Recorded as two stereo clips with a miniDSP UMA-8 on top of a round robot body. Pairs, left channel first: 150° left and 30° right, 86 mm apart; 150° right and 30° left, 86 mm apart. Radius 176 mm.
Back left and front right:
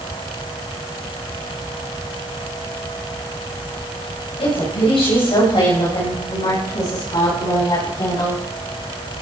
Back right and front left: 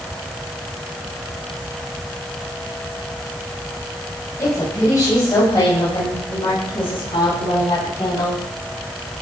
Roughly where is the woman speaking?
Behind left.